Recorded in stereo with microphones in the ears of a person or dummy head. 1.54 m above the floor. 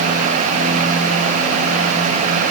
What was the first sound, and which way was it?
Only background noise.